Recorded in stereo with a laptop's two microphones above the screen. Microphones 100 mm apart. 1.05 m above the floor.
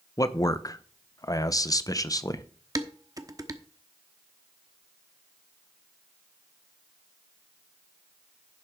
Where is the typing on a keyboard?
I don't hear typing on a keyboard.